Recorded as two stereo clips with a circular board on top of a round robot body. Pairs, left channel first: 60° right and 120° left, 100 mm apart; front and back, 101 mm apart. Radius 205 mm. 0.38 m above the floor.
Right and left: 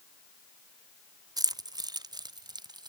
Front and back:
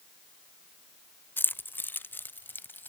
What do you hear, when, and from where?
1.4 s keys jangling: 70° left